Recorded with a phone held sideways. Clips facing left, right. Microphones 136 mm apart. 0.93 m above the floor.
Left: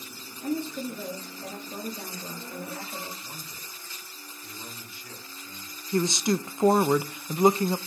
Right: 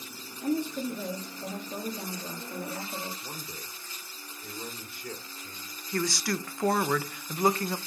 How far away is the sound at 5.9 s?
About 0.5 m.